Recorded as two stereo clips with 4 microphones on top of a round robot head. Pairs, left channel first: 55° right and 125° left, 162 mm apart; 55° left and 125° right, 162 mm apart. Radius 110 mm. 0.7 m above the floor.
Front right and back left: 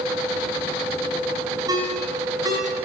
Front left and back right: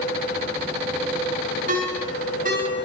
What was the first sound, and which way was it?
A ringtone, 165° right.